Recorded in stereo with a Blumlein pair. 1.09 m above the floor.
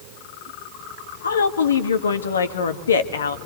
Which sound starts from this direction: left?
A woman speaking, at 1.2 s.